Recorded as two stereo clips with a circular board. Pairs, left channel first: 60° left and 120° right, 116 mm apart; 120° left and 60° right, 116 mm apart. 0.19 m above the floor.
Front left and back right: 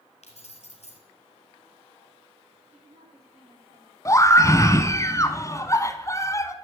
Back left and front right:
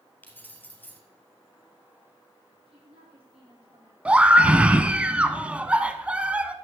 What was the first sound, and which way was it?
Keys jangling, 50° left.